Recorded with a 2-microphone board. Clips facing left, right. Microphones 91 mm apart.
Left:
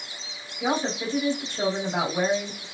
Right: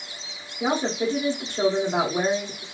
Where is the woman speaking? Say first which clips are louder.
Right 2 dB; 40° right (ahead or behind), 1.9 m.